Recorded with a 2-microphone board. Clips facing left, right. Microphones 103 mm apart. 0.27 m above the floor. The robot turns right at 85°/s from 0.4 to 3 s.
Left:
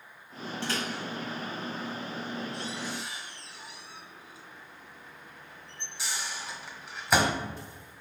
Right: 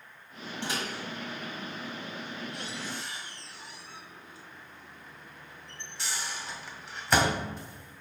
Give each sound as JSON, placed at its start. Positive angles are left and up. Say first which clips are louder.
{"t": 0.6, "sound": "a microwave", "louder": "left 1 dB", "side_deg": -15, "distance_m": 1.4}